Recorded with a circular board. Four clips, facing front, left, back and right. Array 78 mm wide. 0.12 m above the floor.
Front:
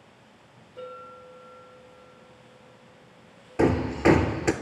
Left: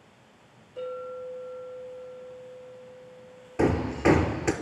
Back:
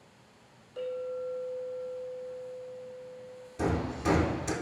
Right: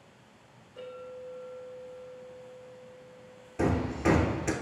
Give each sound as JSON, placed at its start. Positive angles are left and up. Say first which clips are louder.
{"t": 0.8, "sound": "a clink", "louder": "left 7 dB, back 7 dB", "azimuth_deg": 160, "distance_m": 3.0}
{"t": 3.6, "sound": "hammering", "louder": "left 4 dB, front 9 dB", "azimuth_deg": 25, "distance_m": 0.5}